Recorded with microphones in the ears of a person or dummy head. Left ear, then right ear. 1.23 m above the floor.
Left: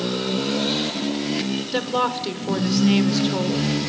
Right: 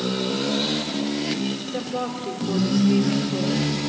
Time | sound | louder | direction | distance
1.7 | a woman speaking | left 10 dB | 40° left (ahead or behind) | 1.0 m